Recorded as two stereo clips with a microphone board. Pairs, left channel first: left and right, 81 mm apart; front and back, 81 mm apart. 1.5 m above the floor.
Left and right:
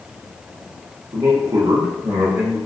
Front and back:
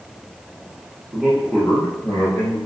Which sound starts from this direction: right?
A man speaking, at 1.1 s.